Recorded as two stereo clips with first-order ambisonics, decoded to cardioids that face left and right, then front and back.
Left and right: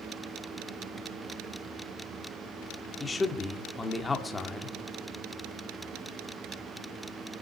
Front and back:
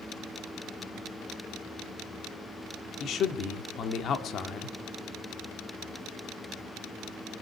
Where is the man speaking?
20° left, 1.3 m.